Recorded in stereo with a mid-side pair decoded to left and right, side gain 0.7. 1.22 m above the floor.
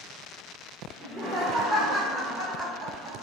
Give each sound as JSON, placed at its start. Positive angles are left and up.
{"t": 1.0, "sound": "laughter", "azimuth_deg": -40, "distance_m": 1.9}